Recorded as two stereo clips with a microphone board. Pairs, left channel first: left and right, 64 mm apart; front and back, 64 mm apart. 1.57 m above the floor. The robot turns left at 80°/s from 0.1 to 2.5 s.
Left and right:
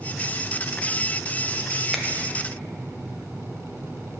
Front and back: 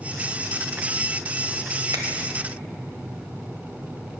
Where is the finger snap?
175° right, 0.8 m; by 2.0 s 175° left, 0.8 m.